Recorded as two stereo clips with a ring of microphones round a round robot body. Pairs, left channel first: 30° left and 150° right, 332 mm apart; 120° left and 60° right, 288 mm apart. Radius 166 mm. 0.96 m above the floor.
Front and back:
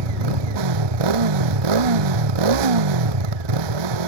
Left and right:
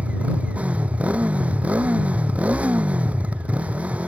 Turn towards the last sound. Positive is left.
turn(degrees=-145)